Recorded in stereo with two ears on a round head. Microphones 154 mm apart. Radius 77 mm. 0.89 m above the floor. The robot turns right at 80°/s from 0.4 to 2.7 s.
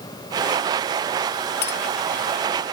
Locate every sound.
1.6 s a clink: 65° left (ahead or behind); by 1.8 s 80° left